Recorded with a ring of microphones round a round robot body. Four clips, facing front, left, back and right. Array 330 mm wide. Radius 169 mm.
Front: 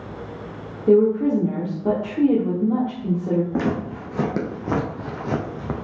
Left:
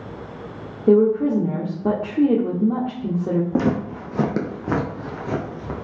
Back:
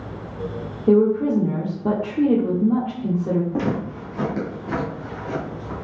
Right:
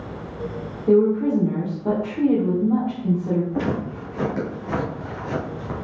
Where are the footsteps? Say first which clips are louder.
Left 3 dB, even; 80° left, 1.7 m; by 5.8 s 5° left, 1.5 m.